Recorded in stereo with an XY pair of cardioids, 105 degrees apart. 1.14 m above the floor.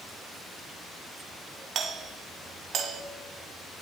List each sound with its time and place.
1.8 s a doorbell: 65° right, 2.5 m